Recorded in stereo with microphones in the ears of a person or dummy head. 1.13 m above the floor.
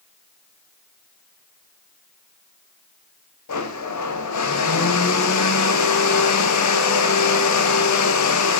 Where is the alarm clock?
No alarm clock in this recording.